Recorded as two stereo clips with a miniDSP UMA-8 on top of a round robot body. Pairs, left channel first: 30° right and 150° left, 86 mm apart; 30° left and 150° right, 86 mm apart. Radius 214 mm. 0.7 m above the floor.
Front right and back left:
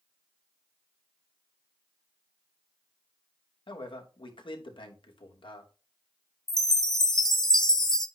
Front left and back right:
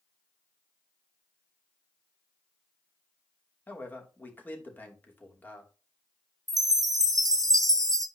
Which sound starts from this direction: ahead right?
A man speaking, at 3.7 s.